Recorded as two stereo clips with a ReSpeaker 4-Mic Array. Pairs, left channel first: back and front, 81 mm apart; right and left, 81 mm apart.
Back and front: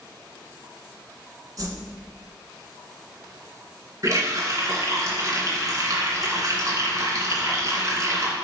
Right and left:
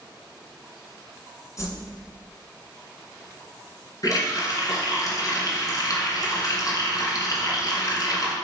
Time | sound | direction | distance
1.6 | a whoosh | 40° right | 1.7 m
4.0 | a running tap | 50° right | 2 m